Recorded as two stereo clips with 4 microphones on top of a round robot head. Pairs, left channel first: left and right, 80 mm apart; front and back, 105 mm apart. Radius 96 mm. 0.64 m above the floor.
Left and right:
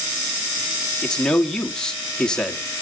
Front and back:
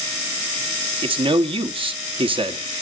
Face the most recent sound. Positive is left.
turn(degrees=170)